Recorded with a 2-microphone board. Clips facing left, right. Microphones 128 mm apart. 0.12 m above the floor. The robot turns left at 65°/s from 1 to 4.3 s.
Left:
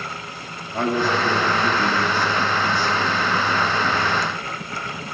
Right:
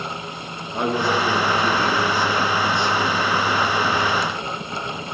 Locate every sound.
0.7 s a man speaking: 30° right, 2 m; by 4.2 s 125° left, 2 m